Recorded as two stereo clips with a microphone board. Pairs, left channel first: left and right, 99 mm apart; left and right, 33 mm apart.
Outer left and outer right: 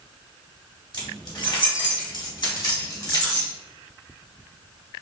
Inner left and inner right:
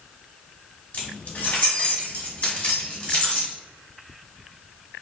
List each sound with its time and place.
0.9 s keys jangling: 50° left (ahead or behind), 0.9 m; by 3.5 s 35° left (ahead or behind), 1.6 m